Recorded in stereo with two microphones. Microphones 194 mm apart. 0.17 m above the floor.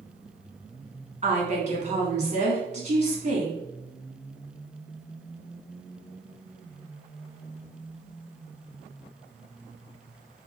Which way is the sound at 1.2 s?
40° right (ahead or behind).